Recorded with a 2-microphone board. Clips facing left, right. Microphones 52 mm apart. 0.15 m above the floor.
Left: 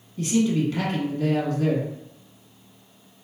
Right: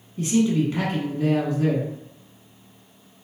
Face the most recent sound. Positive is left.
turn(degrees=-20)  # may be behind; listen again after turning